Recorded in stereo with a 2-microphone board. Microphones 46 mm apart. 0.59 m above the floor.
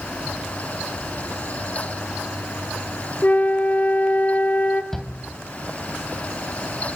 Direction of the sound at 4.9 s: 10° left (ahead or behind).